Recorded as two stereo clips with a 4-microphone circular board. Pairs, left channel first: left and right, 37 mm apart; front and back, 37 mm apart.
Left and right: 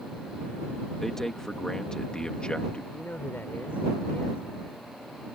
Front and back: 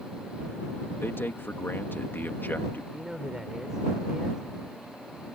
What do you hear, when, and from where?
1.0 s a man speaking: 10° left; by 2.8 s 30° left
2.9 s a man speaking: 105° left